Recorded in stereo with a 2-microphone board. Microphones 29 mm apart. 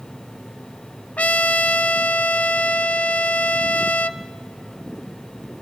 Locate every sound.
1.2 s a trumpet: 65° left (ahead or behind), 0.6 m